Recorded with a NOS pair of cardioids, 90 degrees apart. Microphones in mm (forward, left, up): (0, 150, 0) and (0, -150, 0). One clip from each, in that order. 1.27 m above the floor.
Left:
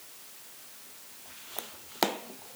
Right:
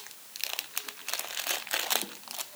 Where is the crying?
I don't hear crying.